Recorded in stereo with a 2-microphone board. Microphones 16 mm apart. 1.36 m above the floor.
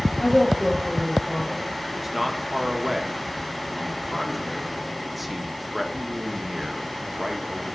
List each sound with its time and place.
0.2 s a woman speaking: 35° left (ahead or behind), 4 m
1.9 s a man speaking: 5° right (ahead or behind), 1.6 m